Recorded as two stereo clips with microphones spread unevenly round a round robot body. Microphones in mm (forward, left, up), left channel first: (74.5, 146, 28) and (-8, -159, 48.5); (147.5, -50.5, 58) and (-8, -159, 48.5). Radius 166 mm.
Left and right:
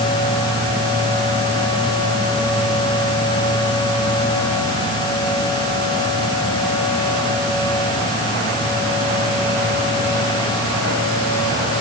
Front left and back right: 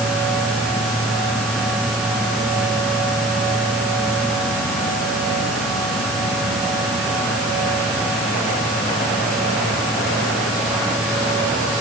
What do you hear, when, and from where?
Only background noise.